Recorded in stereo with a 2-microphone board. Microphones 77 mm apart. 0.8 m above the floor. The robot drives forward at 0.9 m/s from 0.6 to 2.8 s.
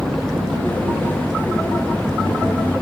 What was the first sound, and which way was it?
An engine running, 10° left (ahead or behind).